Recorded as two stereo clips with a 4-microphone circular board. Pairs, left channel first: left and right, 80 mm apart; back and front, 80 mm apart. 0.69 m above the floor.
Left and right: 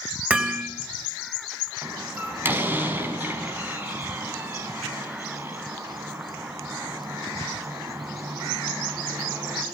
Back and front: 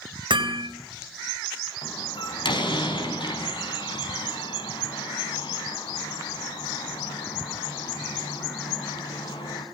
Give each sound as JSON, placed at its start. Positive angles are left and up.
{"t": 0.3, "sound": "hammering", "azimuth_deg": -15, "distance_m": 3.5}
{"t": 1.8, "sound": "a door slam", "azimuth_deg": -155, "distance_m": 4.5}